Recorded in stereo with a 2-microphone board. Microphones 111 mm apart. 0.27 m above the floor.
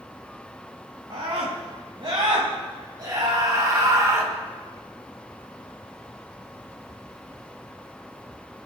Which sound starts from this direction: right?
A scream, at 1.1 s.